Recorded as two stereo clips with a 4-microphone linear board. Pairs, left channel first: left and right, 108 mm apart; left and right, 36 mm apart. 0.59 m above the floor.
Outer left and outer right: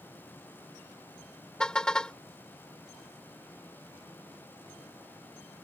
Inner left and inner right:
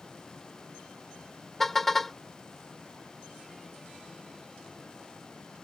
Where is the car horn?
10° left (ahead or behind).